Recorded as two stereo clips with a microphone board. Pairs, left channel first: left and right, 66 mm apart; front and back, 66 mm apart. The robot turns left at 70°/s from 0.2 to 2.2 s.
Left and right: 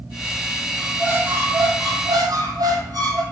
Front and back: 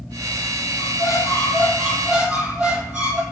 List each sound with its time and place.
0.8 s a squeak: 15° right, 0.9 m; by 3.2 s 115° right, 0.9 m